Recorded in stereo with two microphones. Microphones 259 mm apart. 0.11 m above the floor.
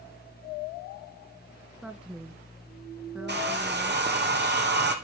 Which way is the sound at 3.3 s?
40° right (ahead or behind).